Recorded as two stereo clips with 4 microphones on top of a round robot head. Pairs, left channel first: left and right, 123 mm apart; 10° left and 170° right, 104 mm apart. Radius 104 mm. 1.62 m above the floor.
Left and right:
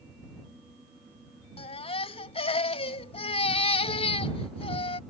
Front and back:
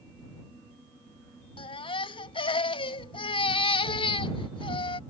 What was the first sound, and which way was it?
A baby crying, 45° left.